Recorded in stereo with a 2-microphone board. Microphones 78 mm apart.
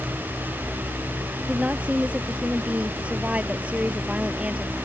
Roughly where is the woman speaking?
Centre.